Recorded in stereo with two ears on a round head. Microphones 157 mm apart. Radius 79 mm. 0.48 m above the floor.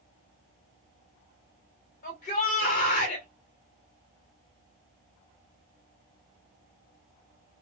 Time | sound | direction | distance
2.0 | a shout | 55° left (ahead or behind) | 1.9 m